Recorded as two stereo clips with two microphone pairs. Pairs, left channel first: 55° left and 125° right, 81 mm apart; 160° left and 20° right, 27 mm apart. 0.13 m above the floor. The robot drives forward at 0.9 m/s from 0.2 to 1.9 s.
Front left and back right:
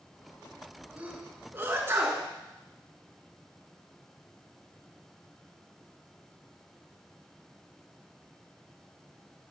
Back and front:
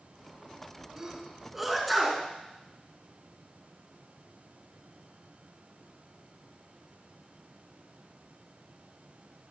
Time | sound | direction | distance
1.0 | a sneeze | 70° right | 1.9 m